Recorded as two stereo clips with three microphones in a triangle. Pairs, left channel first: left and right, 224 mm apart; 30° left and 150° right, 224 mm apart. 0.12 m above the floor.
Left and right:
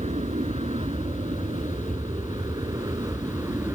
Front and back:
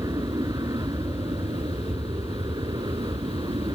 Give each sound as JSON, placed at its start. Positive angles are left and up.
{"t": 0.0, "sound": "an aircraft", "azimuth_deg": -100}